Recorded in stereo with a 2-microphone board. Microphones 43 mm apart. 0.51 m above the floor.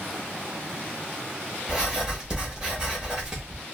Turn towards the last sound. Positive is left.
turn(degrees=-20)  # may be behind; listen again after turning